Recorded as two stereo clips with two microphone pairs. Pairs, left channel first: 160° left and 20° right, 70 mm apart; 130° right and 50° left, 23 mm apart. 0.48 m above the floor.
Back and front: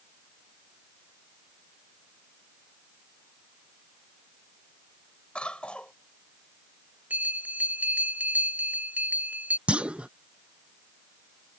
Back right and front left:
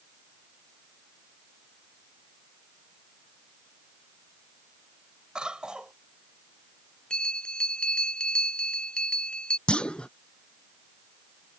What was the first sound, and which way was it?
A cough, 85° left.